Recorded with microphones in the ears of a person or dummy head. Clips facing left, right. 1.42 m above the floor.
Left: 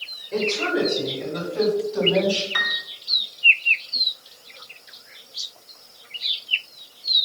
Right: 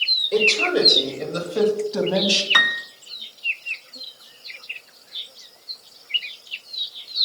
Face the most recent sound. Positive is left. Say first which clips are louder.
# right 5 dB
turn(degrees=-60)  # may be behind; listen again after turning